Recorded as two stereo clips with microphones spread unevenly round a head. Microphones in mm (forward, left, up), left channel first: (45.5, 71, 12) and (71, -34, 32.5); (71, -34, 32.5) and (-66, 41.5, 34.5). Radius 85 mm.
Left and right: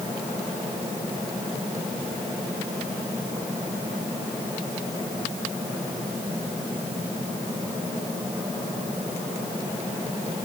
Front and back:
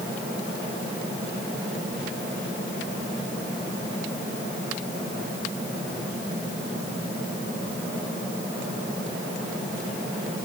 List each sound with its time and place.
Only background noise.